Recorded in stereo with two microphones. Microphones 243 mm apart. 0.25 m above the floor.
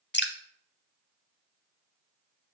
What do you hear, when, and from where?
0.1 s dripping: 45° left (ahead or behind), 0.6 m